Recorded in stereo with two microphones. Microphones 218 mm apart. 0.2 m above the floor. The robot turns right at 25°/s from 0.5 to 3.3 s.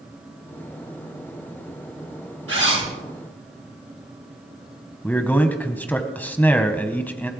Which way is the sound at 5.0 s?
10° left (ahead or behind).